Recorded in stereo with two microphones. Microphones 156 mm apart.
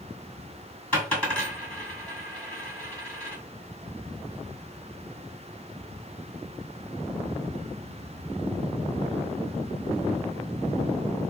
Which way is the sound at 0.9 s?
10° left (ahead or behind).